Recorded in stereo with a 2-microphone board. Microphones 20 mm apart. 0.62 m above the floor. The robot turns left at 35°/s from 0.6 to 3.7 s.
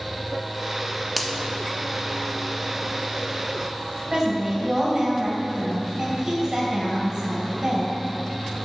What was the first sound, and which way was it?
A finger snap, centre (ahead or behind).